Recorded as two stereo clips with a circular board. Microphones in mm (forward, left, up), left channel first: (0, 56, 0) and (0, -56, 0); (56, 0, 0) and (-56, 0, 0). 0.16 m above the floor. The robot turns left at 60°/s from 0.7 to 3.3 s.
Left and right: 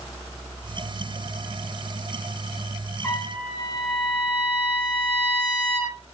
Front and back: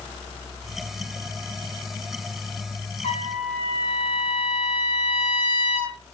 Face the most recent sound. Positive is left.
turn(degrees=5)